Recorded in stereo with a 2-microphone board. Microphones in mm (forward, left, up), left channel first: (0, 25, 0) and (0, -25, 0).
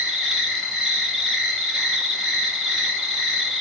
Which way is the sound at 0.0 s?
5° left (ahead or behind).